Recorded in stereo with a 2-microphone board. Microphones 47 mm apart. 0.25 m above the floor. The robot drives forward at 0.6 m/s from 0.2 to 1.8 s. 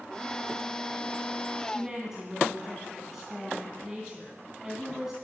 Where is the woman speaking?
10° right (ahead or behind), 2.5 m.